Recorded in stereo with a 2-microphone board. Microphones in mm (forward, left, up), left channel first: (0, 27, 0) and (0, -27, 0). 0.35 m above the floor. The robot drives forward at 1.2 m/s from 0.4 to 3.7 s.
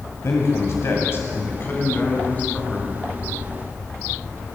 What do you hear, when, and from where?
0.2 s a man speaking: 60° left (ahead or behind), 1.6 m; by 3.0 s 25° left (ahead or behind), 3.5 m